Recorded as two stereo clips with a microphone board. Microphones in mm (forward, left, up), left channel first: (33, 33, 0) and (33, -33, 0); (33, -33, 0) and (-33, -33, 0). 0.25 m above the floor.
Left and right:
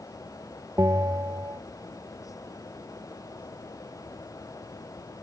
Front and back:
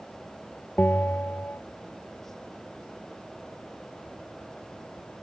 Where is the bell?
60° right.